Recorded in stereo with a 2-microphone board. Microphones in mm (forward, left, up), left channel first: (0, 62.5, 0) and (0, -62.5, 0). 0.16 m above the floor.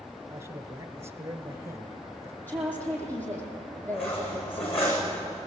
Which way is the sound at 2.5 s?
15° left (ahead or behind).